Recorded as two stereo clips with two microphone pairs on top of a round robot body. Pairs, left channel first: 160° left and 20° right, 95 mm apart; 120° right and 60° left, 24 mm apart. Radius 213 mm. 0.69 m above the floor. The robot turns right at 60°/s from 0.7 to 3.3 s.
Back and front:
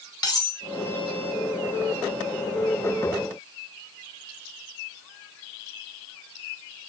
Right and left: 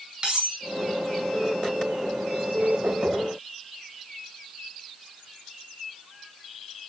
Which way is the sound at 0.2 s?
115° left.